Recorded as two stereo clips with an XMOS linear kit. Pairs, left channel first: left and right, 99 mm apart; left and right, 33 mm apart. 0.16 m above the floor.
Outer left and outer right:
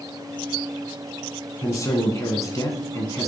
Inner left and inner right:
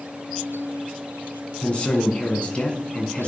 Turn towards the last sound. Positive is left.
turn(degrees=30)  # may be behind; listen again after turning